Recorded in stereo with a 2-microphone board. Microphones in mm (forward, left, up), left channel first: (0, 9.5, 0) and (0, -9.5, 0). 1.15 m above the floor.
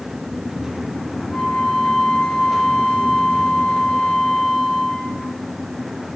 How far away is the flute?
About 9 m.